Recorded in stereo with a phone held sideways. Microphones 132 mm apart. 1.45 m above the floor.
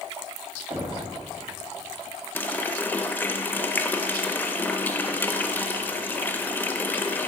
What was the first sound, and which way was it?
Knocking, 40° right (ahead or behind).